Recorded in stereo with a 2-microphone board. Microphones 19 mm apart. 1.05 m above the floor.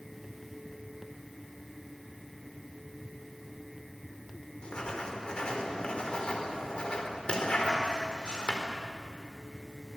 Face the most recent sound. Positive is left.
turn(degrees=55)  # may be behind; listen again after turning